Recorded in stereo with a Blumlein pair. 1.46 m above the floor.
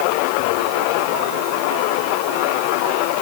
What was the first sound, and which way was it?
Only background noise.